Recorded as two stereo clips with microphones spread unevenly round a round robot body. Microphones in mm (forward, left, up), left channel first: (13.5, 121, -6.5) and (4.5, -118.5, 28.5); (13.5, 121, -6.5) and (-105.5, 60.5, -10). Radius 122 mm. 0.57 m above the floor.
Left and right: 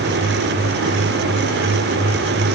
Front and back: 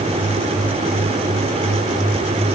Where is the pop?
I don't hear a pop.